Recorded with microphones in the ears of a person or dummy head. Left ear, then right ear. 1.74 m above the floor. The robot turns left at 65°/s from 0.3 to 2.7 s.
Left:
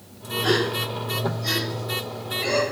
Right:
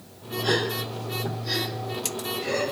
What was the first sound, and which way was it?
A gasp, 10° left (ahead or behind).